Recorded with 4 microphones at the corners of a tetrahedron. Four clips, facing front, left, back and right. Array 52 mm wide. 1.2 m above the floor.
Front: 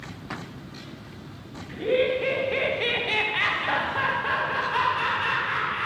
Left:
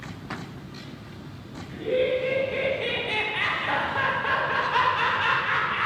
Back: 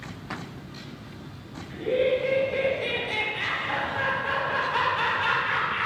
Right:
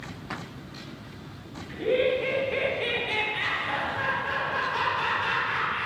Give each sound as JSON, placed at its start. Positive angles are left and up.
{"t": 1.7, "sound": "laughter", "azimuth_deg": -35, "distance_m": 1.6}